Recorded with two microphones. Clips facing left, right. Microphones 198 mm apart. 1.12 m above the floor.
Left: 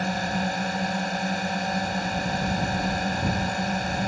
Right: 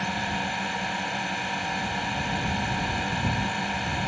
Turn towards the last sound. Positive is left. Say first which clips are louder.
# left 4 dB
turn(degrees=40)  # may be behind; listen again after turning